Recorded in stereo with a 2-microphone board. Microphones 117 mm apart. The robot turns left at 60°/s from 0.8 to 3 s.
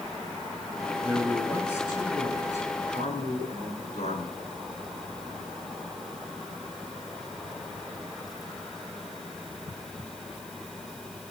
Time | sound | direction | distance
1.0 | a man speaking | 155° right | 10 m